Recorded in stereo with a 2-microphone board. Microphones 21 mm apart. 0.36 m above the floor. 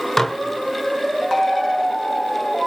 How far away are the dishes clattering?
About 0.7 m.